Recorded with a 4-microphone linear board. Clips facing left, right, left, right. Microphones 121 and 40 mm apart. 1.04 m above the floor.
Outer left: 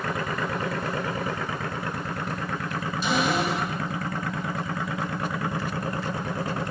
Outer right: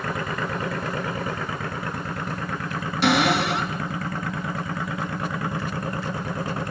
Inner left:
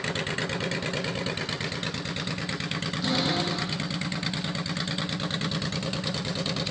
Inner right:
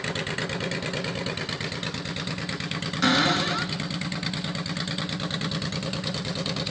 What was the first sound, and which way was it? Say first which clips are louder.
A cupboard door: outer right 5 dB, inner right 6 dB; 80° right.